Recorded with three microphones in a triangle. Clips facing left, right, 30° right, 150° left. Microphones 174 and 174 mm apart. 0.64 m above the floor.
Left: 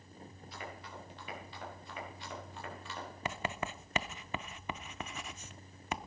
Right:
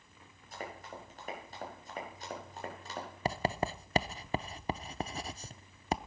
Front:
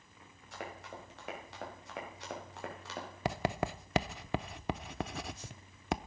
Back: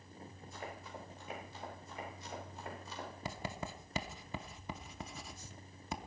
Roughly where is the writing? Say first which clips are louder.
Right 6 dB, front 11 dB; ahead right.